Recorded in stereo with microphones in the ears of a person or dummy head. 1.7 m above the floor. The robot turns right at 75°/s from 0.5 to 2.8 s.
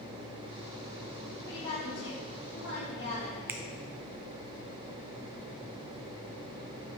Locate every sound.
1.5 s a woman speaking: 15° left, 3.5 m; by 3.4 s 115° left, 3.5 m
3.5 s a finger snap: 15° right (ahead or behind), 0.6 m